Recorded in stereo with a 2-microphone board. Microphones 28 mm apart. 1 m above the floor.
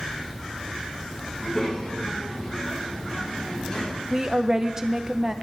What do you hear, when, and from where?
1.3 s a child speaking: 20° left (ahead or behind), 5.5 m; by 4.0 s 30° left (ahead or behind), 4 m
4.1 s a woman speaking: 25° right (ahead or behind), 0.8 m